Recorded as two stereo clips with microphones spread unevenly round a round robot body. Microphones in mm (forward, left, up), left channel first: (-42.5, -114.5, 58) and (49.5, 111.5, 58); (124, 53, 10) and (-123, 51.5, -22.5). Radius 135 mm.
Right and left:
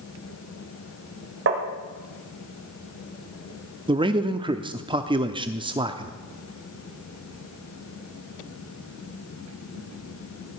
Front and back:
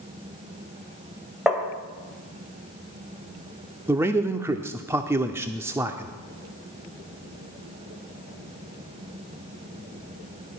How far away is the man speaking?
About 0.7 m.